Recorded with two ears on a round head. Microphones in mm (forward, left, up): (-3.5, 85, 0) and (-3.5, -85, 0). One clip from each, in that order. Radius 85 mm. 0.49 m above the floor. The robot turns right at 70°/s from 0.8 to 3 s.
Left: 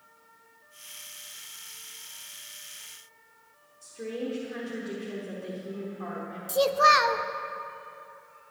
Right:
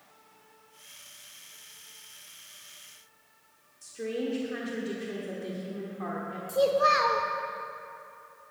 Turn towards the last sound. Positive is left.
turn(degrees=40)  # may be behind; listen again after turning